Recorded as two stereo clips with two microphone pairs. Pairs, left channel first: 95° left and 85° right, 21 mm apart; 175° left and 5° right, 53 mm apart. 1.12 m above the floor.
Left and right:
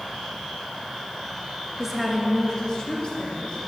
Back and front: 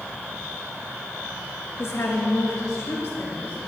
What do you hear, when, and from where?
1.8 s a woman speaking: 155° right, 1.1 m; by 3.6 s 130° left, 1.9 m